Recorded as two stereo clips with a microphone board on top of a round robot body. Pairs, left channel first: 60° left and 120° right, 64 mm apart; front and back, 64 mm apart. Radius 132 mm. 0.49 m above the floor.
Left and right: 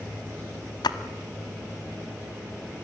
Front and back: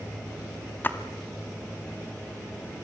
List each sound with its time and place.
0.8 s a splash: 60° left, 1.0 m